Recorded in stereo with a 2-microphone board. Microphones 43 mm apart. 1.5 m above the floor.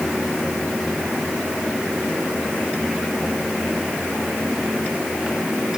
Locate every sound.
Only background noise.